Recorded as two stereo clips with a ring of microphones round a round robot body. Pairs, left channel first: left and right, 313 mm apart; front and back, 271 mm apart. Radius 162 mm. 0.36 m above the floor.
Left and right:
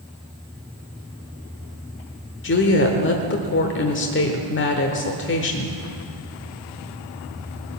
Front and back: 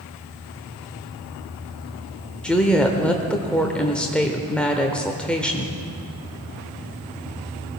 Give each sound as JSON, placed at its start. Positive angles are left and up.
{"t": 2.4, "sound": "a woman speaking", "azimuth_deg": 85, "distance_m": 1.1}